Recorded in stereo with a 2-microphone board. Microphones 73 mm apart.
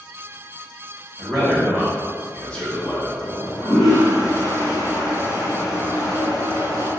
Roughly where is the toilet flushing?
Left.